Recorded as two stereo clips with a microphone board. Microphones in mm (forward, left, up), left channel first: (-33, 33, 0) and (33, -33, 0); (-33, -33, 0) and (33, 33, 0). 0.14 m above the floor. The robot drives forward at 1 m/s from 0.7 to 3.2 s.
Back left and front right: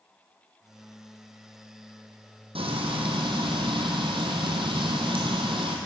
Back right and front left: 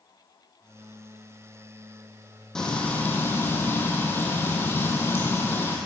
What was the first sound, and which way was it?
Frying, 50° right.